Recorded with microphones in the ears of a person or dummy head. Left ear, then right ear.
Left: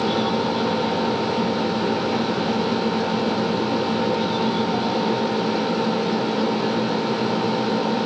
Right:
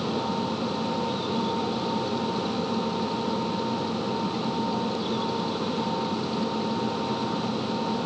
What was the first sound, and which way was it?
Only background noise.